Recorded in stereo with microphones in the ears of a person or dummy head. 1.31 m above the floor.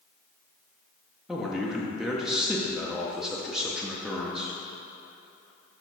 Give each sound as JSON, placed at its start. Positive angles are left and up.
{"t": 1.3, "sound": "a man speaking", "side_deg": 0, "distance_m": 0.6}